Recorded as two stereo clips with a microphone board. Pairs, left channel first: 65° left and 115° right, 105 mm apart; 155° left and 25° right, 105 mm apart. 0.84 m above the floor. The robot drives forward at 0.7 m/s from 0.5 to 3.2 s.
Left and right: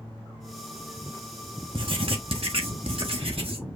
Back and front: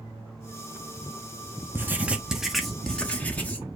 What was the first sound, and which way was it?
Writing, 90° right.